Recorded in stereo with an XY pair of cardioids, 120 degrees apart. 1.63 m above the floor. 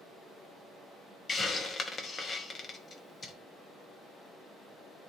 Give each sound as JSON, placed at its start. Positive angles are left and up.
{"t": 1.3, "sound": "a hiss", "azimuth_deg": 35, "distance_m": 1.0}